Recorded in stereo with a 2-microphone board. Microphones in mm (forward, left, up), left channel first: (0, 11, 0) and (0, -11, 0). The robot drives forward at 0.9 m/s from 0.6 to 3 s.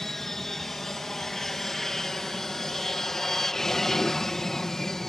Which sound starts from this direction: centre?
An aircraft, at 0.0 s.